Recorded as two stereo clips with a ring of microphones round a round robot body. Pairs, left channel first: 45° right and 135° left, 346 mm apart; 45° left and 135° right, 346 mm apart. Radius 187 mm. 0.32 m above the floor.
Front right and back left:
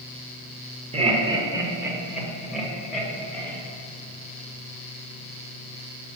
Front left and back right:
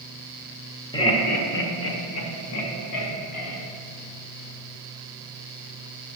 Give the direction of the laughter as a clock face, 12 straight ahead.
9 o'clock.